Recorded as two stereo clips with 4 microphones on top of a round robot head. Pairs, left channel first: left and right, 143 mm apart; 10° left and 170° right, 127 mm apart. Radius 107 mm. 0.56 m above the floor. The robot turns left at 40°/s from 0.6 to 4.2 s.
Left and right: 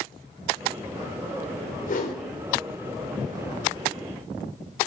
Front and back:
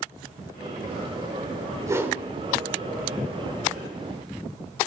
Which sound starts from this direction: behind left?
A whoosh, at 1.9 s.